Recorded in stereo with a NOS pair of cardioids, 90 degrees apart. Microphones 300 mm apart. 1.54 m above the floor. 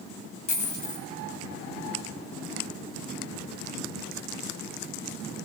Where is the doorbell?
I don't hear a doorbell.